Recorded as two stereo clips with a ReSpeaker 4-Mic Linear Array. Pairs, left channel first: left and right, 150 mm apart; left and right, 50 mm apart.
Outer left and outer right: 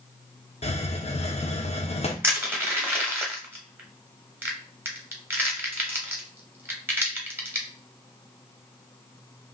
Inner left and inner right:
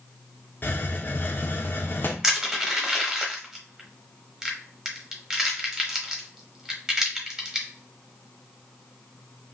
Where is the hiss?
45° left (ahead or behind), 0.6 m.